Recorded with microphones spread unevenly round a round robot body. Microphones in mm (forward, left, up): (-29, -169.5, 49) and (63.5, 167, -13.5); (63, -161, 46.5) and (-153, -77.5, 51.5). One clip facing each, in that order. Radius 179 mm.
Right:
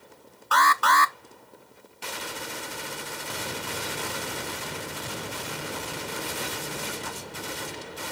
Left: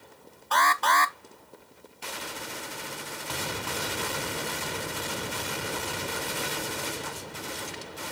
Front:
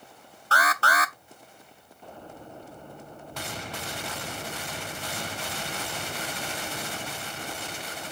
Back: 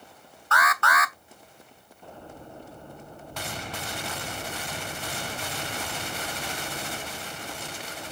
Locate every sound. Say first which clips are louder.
0.5 s an alarm: right 2 dB, even; 30° right, 0.7 m